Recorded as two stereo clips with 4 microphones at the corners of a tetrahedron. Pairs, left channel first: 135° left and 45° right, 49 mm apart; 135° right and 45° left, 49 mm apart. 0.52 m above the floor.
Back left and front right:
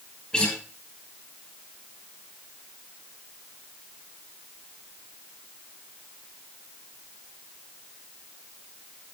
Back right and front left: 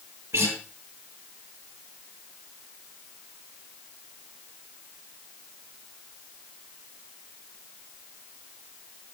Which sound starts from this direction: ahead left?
A guitar, at 0.3 s.